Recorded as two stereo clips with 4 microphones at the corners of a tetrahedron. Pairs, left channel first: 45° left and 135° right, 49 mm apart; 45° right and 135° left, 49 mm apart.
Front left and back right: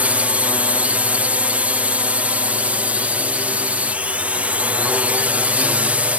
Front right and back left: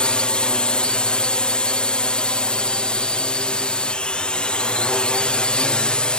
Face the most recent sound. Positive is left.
turn(degrees=-100)